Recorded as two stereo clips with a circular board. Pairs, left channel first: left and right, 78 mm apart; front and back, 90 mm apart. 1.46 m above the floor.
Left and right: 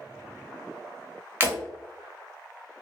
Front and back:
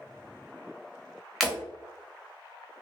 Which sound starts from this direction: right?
Breaking glass, at 1.4 s.